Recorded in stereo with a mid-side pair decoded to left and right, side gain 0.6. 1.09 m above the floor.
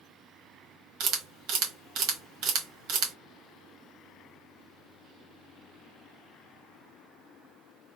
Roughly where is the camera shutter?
Ahead right.